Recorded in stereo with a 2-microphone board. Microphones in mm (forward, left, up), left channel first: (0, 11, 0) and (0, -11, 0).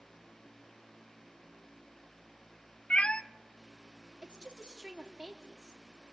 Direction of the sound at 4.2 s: 30° right (ahead or behind).